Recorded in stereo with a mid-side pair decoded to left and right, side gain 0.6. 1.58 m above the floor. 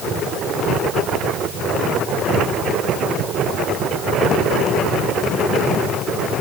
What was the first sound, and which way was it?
Only background noise.